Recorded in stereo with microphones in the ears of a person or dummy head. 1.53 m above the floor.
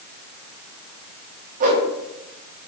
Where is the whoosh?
40° right (ahead or behind), 1.2 m.